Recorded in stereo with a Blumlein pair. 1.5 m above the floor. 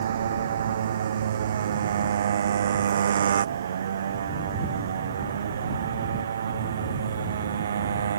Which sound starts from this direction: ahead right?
A motorcycle, at 0.0 s.